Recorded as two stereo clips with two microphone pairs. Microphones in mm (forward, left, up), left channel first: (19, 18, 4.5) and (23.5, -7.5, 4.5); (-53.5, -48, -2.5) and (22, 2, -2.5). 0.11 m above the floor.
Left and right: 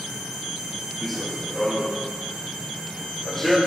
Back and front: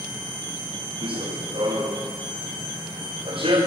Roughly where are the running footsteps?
Ahead.